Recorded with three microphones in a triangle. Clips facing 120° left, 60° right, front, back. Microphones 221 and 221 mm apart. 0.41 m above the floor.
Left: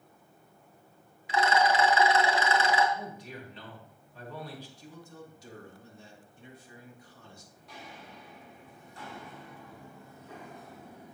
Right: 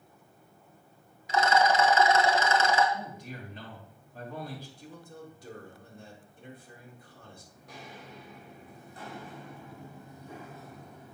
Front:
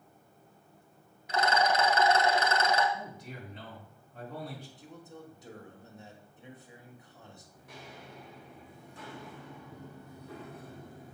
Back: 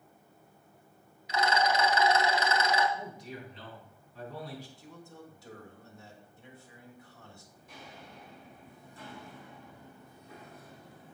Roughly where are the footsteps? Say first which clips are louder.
Right 2 dB, front 2 dB; ahead.